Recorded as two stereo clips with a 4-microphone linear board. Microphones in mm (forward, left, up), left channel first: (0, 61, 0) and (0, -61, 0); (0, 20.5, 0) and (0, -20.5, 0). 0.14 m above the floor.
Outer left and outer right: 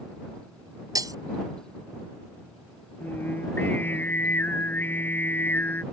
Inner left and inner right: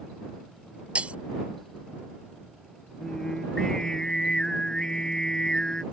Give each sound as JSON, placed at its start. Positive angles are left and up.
{"t": 0.9, "sound": "breaking glass", "side_deg": -30}
{"t": 3.0, "sound": "singing", "side_deg": 20}